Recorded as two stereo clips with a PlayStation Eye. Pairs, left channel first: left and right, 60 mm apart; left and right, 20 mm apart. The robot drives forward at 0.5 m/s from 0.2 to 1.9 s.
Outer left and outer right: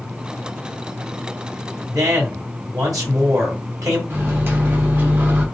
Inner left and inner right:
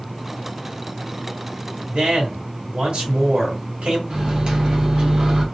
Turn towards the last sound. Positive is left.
turn(degrees=-35)  # may be behind; listen again after turning